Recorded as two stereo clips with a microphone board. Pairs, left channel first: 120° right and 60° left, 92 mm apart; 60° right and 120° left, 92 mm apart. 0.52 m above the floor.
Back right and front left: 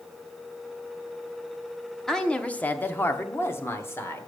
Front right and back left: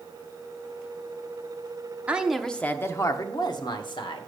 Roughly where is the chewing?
No chewing in this recording.